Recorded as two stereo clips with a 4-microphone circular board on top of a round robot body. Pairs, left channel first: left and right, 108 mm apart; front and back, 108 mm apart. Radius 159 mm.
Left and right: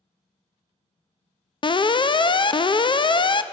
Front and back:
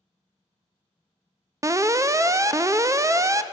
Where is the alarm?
120° left, 0.6 m.